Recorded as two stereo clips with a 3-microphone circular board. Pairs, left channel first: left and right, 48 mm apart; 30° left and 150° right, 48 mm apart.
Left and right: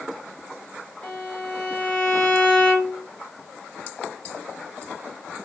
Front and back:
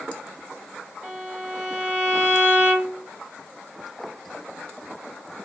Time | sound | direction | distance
1.0 | a violin | 145° left | 1.7 m